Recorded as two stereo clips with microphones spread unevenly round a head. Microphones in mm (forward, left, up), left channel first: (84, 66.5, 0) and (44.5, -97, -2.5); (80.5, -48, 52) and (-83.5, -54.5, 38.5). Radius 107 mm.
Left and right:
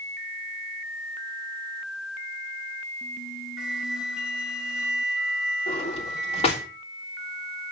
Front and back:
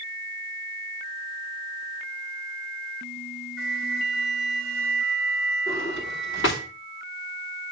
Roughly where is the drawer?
Ahead left.